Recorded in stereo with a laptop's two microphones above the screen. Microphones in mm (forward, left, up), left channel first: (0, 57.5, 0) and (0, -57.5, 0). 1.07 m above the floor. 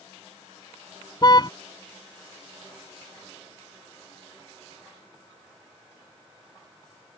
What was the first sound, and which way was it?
A car horn, 35° left (ahead or behind).